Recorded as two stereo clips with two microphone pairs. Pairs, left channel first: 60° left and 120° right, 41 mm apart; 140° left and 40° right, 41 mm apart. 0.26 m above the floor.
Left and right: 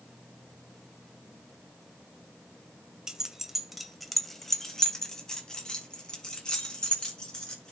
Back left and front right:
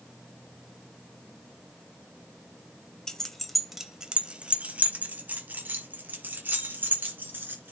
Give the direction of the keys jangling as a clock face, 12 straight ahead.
6 o'clock.